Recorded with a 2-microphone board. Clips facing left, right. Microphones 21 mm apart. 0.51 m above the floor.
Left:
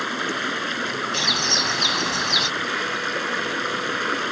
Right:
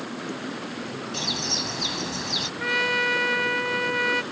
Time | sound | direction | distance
0.0 | running water | 80° left | ?
1.1 | a bird | 20° left (ahead or behind) | ?
2.6 | a trumpet | 45° right (ahead or behind) | ?